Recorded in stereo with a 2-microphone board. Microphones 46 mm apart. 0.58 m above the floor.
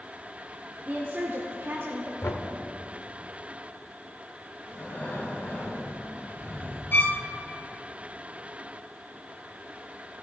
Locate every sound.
0.9 s a woman speaking: 35° right (ahead or behind), 1.2 m; by 2.1 s 65° right (ahead or behind), 1.5 m
2.2 s knocking: 70° left (ahead or behind), 1.0 m
4.7 s breathing: 40° left (ahead or behind), 2.5 m
6.9 s a violin: 45° left (ahead or behind), 0.8 m